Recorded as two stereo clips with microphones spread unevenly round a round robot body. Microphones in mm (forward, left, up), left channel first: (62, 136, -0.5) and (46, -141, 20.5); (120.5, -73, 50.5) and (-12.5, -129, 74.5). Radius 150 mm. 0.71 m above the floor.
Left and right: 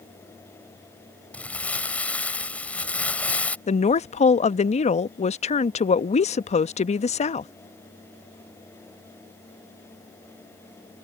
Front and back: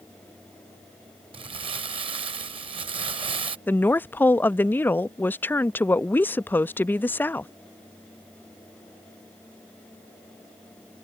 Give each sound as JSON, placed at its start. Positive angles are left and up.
{"t": 1.3, "sound": "crumpling", "azimuth_deg": 175}
{"t": 3.7, "sound": "a woman speaking", "azimuth_deg": 65}